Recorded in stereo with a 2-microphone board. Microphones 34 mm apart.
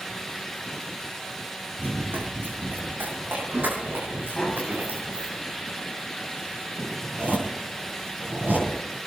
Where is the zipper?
55° right (ahead or behind), 10 m.